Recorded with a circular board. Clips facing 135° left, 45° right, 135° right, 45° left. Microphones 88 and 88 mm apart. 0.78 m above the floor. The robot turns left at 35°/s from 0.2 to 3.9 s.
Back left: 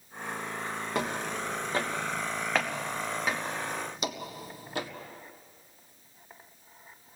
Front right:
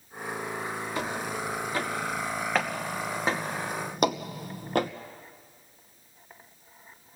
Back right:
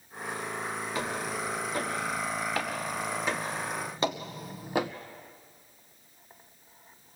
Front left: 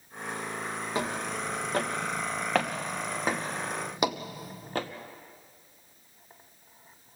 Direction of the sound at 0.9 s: 110° left.